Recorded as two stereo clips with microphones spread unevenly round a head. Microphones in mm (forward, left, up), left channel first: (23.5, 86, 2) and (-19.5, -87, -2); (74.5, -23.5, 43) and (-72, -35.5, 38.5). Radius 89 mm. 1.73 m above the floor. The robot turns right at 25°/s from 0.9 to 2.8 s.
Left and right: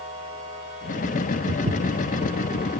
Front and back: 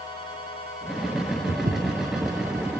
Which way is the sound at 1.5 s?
140° right.